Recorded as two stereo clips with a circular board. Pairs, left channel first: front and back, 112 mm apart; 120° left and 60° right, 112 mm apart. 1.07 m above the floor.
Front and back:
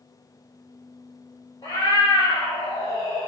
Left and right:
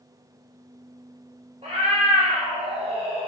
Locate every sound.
1.6 s a cat meowing: 50° right, 1.3 m